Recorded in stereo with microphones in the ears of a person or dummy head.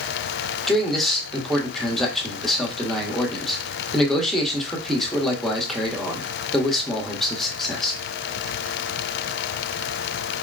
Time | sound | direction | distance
0.7 | a man speaking | centre (ahead or behind) | 1.0 m